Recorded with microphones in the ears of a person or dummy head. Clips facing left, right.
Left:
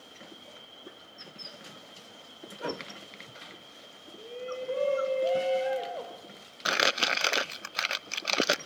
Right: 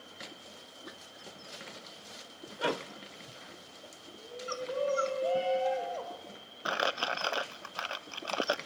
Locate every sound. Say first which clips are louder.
4.2 s a shout: left 3 dB; 35° left (ahead or behind), 5.5 m; by 6.2 s 20° left (ahead or behind), 5 m
6.7 s crumpling: left 2 dB; 25° left (ahead or behind), 0.6 m